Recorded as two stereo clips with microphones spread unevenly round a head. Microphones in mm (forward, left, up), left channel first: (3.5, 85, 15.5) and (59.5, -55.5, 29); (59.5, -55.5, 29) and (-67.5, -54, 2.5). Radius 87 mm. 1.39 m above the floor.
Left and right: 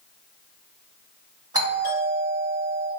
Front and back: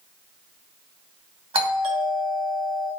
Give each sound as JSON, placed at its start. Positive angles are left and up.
{"t": 1.5, "sound": "a doorbell", "azimuth_deg": -135, "distance_m": 1.3}